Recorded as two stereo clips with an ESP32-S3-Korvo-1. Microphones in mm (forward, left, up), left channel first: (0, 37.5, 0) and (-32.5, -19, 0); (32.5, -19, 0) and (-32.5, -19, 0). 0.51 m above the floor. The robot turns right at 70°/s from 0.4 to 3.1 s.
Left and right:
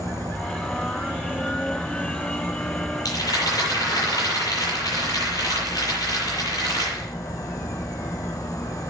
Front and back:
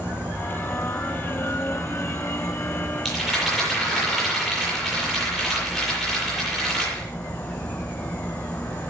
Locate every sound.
0.0 s an insect: 115° right, 2.5 m; by 8.9 s 75° left, 2.5 m
3.0 s a rattle: 90° left, 9 m; by 7.1 s 95° left, 9 m